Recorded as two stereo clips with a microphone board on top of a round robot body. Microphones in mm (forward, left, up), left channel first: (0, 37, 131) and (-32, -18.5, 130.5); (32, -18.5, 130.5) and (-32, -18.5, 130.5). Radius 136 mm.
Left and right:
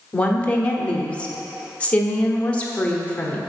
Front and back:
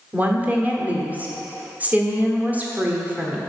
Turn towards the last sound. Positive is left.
turn(degrees=125)